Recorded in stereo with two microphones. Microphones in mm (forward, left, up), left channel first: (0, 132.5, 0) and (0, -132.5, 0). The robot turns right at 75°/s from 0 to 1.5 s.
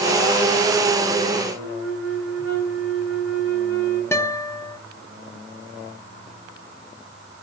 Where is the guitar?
10° left (ahead or behind), 0.7 m.